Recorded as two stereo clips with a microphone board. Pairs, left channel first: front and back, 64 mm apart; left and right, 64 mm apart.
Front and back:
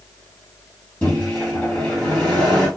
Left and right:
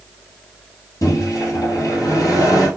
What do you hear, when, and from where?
1.0 s a microwave: 65° left, 2.5 m